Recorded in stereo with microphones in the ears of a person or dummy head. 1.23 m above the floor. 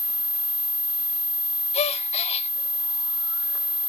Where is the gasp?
30° left (ahead or behind), 0.6 m.